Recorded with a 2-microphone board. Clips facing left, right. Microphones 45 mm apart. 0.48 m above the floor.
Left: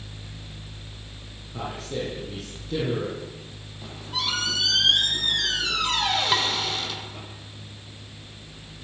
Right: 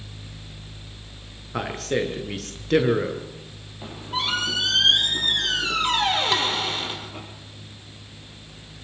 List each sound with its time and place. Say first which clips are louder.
1.5 s a man speaking: right 6 dB; 75° right (ahead or behind), 6.5 m
3.8 s a squeak: right 3 dB; 30° right (ahead or behind), 7.5 m
6.3 s dishes clattering: right 1 dB; 10° left (ahead or behind), 3.5 m